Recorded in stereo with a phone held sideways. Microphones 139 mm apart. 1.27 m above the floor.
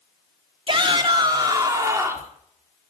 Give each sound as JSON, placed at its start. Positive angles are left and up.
{"t": 0.7, "sound": "a shout", "side_deg": -40, "distance_m": 3.5}